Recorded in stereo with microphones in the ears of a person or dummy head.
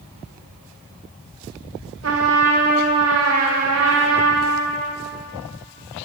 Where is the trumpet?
80° right, 3 m.